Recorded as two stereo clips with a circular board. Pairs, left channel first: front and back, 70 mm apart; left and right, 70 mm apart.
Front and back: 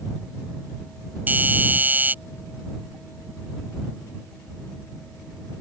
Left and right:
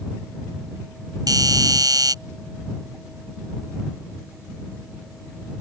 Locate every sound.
1.3 s a doorbell: 115° right